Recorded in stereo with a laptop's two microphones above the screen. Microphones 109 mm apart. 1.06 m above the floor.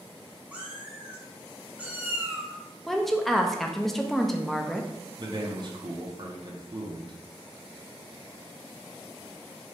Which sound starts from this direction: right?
A man speaking, at 5.2 s.